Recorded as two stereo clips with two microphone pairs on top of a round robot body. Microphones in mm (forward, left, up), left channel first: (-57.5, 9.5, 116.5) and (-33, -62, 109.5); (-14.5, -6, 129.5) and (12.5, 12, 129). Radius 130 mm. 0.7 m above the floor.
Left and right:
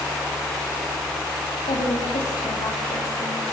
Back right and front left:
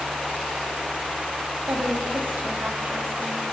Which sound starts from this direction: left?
A woman speaking, at 1.7 s.